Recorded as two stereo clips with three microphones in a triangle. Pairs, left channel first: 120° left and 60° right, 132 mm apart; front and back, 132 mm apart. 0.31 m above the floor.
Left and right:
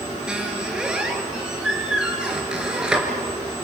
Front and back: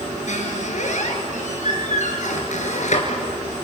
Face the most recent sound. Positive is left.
turn(degrees=25)